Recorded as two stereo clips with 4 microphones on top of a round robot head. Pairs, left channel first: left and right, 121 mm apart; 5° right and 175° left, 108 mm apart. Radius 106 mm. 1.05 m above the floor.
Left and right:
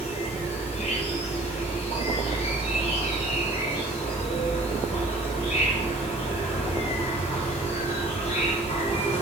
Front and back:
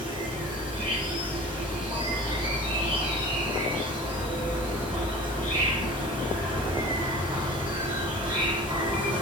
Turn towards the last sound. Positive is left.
turn(degrees=130)